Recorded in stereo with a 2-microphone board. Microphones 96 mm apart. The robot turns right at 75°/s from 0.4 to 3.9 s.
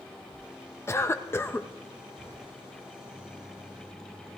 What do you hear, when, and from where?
0.9 s a cough: 25° left (ahead or behind), 0.5 m; by 1.7 s 15° left (ahead or behind), 0.5 m